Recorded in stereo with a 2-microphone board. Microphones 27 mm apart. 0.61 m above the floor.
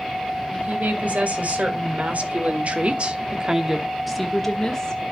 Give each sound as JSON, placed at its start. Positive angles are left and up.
{"t": 0.5, "sound": "a woman speaking", "side_deg": -65, "distance_m": 3.0}